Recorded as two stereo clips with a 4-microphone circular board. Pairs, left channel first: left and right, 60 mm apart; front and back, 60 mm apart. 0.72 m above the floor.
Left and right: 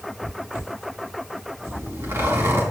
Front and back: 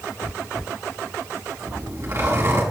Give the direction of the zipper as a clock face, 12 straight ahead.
4 o'clock.